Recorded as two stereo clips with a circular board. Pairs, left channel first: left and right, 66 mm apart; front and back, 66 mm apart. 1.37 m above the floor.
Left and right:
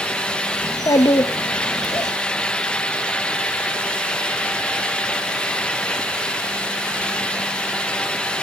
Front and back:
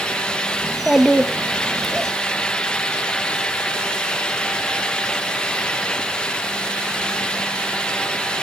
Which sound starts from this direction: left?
A child speaking, at 0.6 s.